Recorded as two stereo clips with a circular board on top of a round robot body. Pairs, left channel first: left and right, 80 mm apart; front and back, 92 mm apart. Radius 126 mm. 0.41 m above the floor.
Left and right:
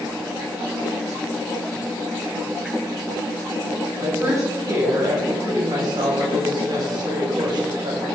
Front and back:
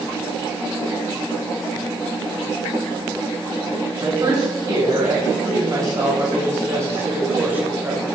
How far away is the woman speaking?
About 4 m.